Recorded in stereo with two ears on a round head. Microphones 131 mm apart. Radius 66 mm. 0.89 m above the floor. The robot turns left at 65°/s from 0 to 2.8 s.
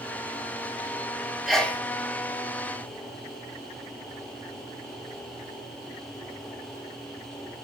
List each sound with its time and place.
1.5 s a sneeze: centre (ahead or behind), 2 m; by 1.8 s 20° left (ahead or behind), 2 m